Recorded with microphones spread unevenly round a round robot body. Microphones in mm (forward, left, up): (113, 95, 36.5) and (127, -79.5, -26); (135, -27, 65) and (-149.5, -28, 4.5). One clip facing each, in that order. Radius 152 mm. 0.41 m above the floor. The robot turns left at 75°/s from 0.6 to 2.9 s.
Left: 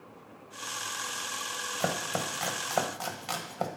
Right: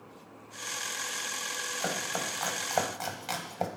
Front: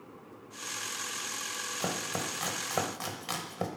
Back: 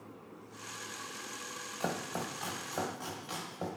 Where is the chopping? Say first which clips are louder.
Left 3 dB, front 1 dB; 70° left, 1.5 m; by 3.7 s 10° right, 1.5 m.